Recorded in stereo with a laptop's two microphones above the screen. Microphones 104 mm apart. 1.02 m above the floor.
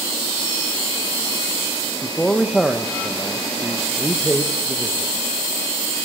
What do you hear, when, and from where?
2.0 s a man speaking: 5° left (ahead or behind), 0.9 m